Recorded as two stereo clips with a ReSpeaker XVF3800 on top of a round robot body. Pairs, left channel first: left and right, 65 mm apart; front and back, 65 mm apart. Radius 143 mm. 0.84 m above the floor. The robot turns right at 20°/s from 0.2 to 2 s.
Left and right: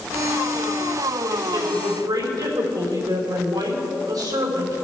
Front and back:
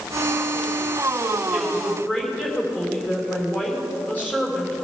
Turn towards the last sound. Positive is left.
turn(degrees=-65)